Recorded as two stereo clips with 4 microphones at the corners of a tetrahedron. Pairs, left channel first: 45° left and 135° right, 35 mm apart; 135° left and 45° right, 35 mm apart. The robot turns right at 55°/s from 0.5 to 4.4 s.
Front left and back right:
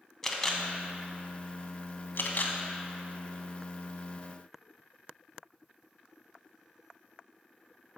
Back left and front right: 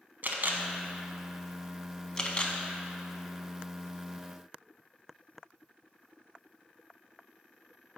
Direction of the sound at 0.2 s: 30° right.